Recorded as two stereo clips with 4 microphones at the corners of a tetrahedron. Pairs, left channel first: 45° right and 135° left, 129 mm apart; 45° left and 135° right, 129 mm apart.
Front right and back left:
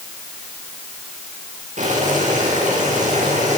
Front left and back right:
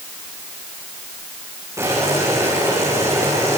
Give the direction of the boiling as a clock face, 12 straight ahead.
7 o'clock.